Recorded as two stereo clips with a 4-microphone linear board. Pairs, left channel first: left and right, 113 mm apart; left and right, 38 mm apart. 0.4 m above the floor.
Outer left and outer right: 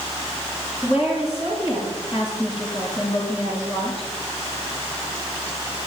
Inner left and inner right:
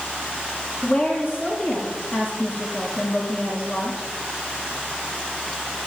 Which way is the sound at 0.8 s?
45° left (ahead or behind).